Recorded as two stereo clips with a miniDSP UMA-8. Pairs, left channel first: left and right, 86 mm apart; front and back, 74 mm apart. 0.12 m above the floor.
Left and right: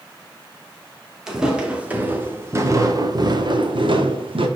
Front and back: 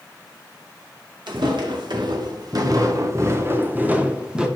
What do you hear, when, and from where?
1.3 s footsteps: 175° right, 1.8 m; by 4.5 s 100° right, 1.5 m